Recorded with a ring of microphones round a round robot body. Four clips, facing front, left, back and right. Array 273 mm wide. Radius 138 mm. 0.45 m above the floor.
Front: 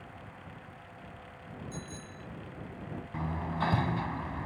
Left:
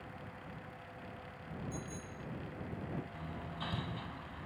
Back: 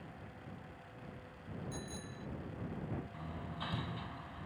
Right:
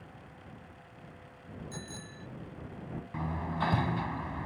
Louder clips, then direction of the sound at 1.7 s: Even, front 2 dB; 90° right.